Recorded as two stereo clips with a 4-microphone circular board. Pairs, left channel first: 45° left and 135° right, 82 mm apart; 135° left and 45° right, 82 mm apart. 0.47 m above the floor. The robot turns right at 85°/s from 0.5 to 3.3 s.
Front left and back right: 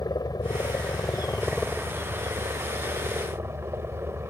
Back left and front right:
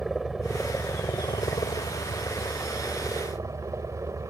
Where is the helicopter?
40° left; by 4.3 s 85° right.